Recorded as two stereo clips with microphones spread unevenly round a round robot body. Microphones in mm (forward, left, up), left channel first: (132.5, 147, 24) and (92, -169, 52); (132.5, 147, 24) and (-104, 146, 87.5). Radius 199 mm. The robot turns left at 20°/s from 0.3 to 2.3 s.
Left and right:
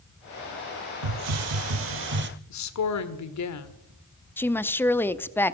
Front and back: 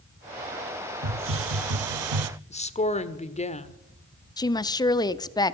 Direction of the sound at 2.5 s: 55° left.